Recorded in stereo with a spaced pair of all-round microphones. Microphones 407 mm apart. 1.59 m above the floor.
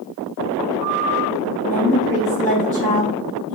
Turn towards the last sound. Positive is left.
turn(degrees=-45)  # may be behind; listen again after turning